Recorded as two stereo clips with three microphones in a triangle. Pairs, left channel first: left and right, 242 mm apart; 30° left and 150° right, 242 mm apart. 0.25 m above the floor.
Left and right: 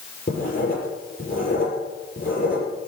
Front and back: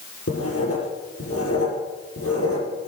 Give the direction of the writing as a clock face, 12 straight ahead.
11 o'clock.